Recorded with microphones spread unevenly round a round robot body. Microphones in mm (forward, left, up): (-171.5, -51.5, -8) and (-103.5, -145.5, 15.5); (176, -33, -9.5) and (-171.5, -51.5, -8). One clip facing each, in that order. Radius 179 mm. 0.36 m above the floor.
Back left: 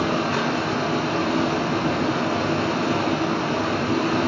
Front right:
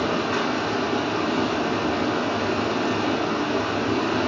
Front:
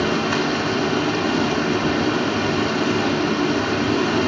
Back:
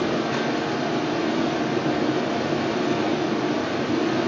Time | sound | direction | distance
0.0 | running water | 35° left | 1.5 m